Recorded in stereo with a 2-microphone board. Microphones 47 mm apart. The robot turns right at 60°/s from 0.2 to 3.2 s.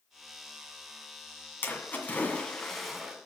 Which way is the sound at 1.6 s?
105° left.